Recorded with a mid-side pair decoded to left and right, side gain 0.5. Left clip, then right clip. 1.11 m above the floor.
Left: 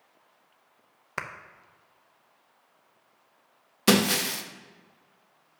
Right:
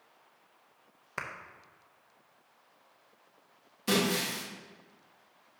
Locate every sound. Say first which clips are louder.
1.2 s a clap: left 4 dB; 30° left, 0.8 m
3.9 s breaking glass: left 6 dB; 70° left, 0.8 m